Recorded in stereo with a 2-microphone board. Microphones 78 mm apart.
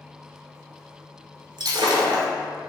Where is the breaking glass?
80° right, 0.7 m.